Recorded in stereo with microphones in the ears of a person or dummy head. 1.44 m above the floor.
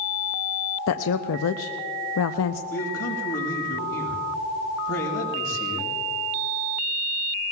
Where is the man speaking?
80° left, 5.5 m.